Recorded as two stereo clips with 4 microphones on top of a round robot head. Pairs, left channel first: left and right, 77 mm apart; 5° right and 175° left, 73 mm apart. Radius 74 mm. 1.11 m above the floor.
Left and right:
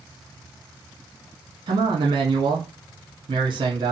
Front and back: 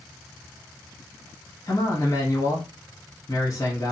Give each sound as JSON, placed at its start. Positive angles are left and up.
{"t": 1.7, "sound": "a man speaking", "azimuth_deg": -65, "distance_m": 1.3}